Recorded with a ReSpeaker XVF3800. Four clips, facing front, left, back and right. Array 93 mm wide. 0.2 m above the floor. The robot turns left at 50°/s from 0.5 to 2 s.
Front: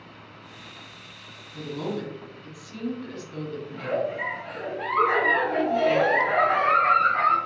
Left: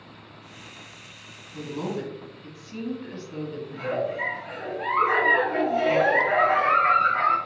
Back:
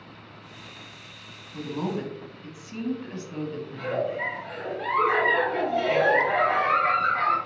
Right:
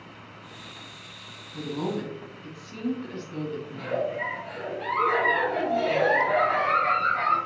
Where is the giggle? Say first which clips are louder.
Left 2 dB, front 1 dB; 30° left, 1.8 m.